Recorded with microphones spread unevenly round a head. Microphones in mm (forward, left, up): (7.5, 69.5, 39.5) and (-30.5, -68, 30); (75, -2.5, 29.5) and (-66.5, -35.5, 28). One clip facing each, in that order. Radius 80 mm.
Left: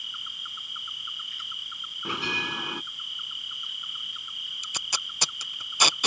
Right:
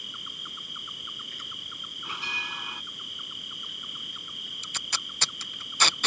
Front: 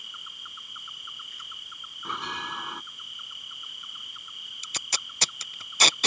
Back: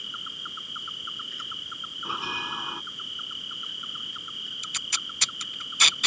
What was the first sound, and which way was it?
An insect, 155° right.